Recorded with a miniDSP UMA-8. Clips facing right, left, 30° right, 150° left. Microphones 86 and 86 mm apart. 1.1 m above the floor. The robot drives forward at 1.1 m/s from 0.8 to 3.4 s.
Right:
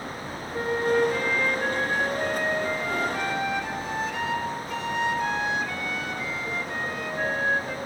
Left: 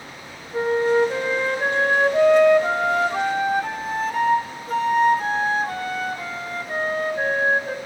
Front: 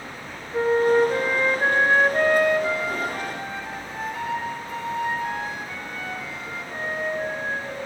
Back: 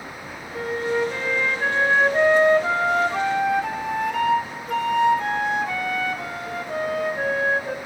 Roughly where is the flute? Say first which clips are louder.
Left 5 dB, front 6 dB; ahead left.